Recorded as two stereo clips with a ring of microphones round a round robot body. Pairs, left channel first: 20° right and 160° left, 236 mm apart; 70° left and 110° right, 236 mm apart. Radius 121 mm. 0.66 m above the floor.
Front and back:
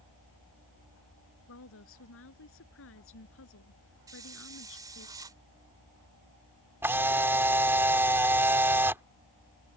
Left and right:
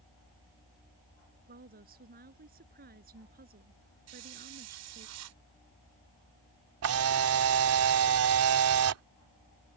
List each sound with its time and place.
1.5 s a woman speaking: 60° right
4.1 s a hiss: 125° right
6.8 s a camera shutter: 120° right